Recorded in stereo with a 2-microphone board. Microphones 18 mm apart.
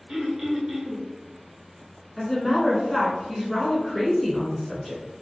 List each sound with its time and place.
0.1 s throat clearing: 45° right (ahead or behind), 1.1 m
2.2 s a woman speaking: 15° left (ahead or behind), 1.1 m